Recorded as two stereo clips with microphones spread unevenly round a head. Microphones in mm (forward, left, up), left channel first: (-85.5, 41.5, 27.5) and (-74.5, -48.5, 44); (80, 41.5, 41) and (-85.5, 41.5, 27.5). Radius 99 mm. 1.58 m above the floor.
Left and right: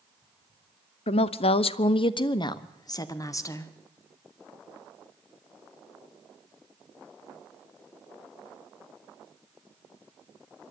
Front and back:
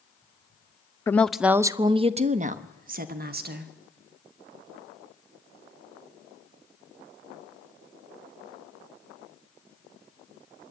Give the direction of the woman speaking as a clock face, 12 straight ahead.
9 o'clock.